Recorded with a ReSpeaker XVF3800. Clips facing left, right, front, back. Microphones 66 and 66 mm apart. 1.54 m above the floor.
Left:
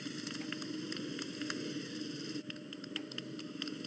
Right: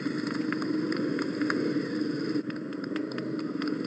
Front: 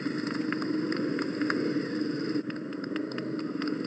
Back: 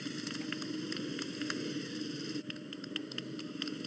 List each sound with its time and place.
0.0 s a motorcycle: 50° right